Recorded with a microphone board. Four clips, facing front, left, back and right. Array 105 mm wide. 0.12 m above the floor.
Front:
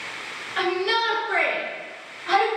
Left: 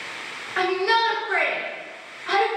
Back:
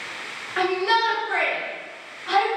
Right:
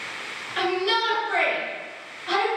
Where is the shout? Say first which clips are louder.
Left 3 dB, back 2 dB; 125° left, 1.4 m; by 2.5 s 50° left, 1.5 m.